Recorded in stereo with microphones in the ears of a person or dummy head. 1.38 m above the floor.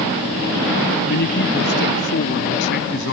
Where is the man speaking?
55° left (ahead or behind); by 3.1 s 60° left (ahead or behind).